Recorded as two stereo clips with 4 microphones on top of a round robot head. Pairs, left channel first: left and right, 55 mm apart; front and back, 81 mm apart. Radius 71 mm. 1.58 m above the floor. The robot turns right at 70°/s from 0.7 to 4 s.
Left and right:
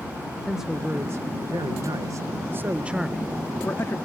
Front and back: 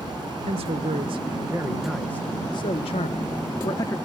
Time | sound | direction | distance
0.5 | a man speaking | 175° right | ?